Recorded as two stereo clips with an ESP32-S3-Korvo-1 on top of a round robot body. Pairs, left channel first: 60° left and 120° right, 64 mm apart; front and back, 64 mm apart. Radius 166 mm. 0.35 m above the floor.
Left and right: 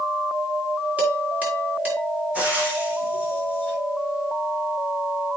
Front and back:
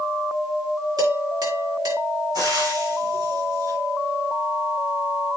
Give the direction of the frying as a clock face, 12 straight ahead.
6 o'clock.